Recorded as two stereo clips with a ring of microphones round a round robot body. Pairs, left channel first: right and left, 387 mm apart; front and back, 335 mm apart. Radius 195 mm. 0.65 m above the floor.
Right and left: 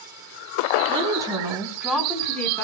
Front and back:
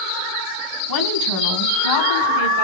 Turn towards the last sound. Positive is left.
turn(degrees=-5)